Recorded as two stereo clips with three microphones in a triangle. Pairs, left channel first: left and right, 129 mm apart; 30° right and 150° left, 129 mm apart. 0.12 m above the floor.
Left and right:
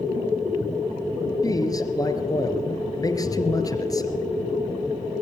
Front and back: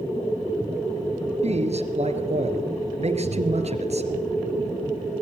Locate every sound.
1.4 s a man speaking: 145° left, 2.5 m